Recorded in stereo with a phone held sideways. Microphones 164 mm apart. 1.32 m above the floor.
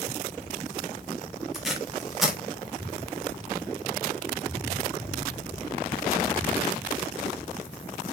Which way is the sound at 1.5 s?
Centre (ahead or behind).